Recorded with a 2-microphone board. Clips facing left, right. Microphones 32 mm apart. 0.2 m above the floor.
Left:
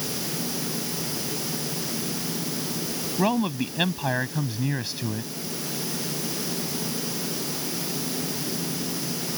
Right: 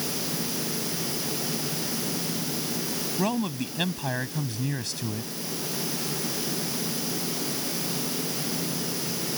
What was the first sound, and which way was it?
A man speaking, 20° left (ahead or behind).